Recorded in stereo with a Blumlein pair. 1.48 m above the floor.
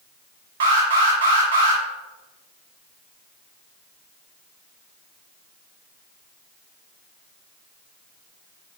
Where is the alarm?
55° right, 2 m.